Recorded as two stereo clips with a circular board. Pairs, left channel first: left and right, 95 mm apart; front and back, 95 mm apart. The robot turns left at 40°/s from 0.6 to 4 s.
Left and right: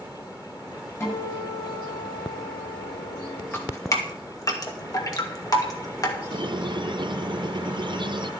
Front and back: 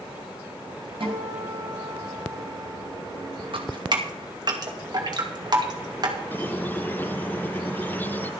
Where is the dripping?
155° left, 2 m; by 6.2 s 140° left, 2 m.